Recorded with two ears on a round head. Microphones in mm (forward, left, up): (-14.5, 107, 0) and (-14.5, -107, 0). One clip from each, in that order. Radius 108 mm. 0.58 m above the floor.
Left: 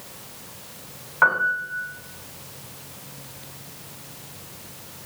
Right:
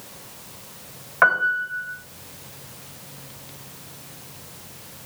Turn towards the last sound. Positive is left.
turn(degrees=-30)  # may be behind; listen again after turning